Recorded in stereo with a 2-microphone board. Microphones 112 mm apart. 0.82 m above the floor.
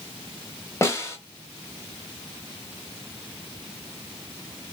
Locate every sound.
0.8 s a snare drum: 25° left (ahead or behind), 0.6 m